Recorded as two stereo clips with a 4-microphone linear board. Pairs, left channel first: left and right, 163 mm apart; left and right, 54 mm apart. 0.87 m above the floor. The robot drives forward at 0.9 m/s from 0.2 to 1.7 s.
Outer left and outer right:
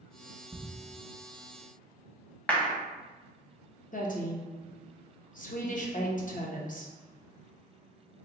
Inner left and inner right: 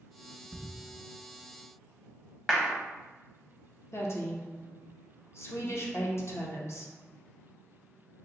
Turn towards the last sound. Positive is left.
turn(degrees=55)  # may be behind; listen again after turning